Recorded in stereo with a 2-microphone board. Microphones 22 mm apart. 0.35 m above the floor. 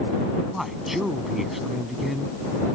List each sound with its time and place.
0.5 s a man speaking: 10° right (ahead or behind)